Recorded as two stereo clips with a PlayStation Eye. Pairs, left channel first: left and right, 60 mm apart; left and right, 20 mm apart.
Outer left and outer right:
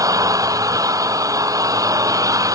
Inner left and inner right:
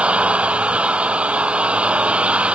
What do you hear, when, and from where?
0.0 s an engine running: 70° right (ahead or behind)